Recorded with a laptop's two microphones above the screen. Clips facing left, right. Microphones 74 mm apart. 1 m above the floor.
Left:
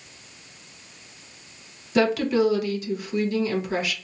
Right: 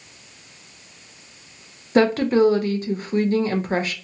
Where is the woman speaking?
40° right (ahead or behind), 0.6 m.